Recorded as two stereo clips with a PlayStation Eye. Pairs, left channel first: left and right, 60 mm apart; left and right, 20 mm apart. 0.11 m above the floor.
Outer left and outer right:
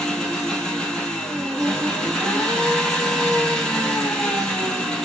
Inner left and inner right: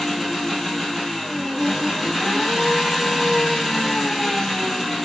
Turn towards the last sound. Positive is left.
turn(degrees=10)  # may be behind; listen again after turning